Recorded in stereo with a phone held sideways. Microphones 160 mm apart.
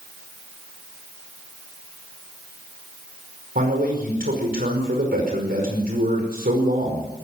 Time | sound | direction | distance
3.5 | a man speaking | 70° right (ahead or behind) | 5 m